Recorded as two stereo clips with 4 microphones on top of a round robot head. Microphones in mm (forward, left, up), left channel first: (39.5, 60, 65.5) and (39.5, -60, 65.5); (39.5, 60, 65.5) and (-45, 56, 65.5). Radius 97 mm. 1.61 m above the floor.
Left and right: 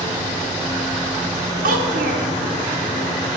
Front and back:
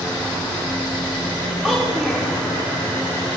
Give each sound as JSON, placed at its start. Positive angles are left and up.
{"t": 1.6, "sound": "a child speaking", "azimuth_deg": -90, "distance_m": 0.7}